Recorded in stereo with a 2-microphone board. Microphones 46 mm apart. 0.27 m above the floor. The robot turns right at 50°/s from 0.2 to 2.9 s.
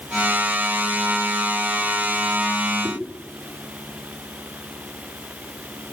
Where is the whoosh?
70° right (ahead or behind), 9.5 m; by 3.0 s 75° right (ahead or behind), 9.5 m.